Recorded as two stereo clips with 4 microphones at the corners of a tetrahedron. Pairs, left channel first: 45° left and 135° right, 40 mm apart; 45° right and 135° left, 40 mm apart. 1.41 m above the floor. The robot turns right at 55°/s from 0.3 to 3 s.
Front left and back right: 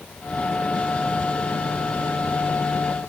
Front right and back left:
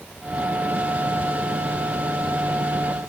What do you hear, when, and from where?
Only background noise.